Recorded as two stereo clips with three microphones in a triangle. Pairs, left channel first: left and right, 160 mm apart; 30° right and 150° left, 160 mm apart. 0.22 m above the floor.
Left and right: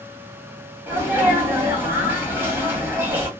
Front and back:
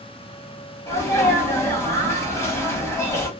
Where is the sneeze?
45° right, 1.3 m.